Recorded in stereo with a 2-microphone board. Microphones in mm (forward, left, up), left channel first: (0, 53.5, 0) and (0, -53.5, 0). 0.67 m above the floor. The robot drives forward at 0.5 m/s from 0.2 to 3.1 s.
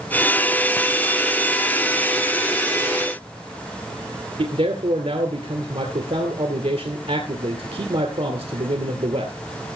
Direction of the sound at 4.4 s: 65° right (ahead or behind).